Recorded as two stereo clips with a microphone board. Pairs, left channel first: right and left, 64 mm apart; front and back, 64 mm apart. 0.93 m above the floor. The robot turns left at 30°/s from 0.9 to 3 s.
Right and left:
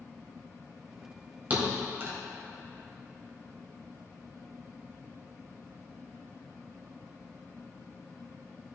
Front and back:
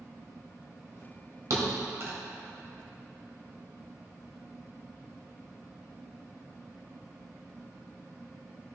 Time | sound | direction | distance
1.5 | a thud | 150° left | 1.6 m